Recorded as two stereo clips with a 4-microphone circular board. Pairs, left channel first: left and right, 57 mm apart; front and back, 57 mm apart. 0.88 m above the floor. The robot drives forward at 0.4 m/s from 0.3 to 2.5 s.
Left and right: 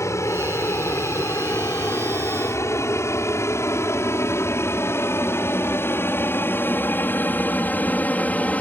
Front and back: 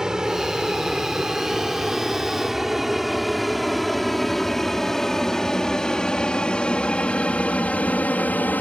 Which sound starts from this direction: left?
An aircraft, at 0.0 s.